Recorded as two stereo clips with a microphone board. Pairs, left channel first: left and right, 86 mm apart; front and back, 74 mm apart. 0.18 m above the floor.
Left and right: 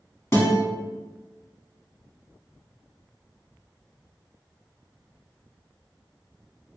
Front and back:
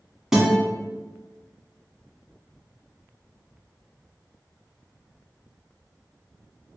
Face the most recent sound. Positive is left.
turn(degrees=100)